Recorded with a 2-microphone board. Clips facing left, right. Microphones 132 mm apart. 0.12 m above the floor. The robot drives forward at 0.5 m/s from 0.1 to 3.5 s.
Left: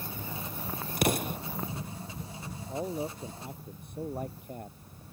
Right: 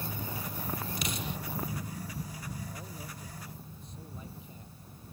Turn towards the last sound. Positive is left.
turn(degrees=60)  # may be behind; listen again after turning